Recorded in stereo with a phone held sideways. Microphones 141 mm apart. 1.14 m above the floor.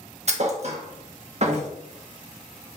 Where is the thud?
50° right (ahead or behind), 0.7 m.